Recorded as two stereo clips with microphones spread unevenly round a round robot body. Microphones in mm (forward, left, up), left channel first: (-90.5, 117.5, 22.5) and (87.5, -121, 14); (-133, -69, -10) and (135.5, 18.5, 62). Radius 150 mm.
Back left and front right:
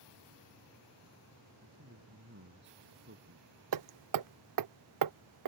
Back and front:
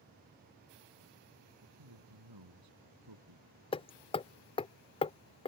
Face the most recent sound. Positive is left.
turn(degrees=-85)